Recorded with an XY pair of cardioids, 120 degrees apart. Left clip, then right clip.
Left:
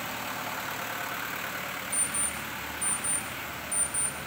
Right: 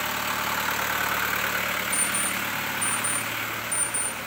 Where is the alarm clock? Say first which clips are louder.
Right 7 dB; 20° right, 3 m.